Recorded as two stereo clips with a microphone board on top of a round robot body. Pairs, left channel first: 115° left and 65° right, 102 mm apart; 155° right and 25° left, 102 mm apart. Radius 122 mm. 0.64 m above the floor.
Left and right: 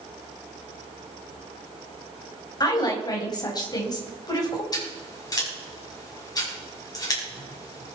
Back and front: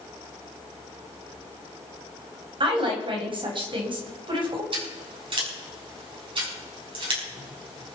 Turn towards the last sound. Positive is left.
turn(degrees=60)